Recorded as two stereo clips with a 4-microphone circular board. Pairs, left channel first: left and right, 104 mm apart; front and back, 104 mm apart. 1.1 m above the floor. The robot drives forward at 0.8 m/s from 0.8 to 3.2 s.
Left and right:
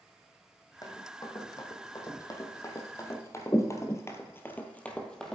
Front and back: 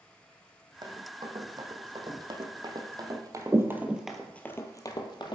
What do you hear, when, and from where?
0.8 s running footsteps: 140° left, 2.5 m; by 5.3 s 5° left, 1.7 m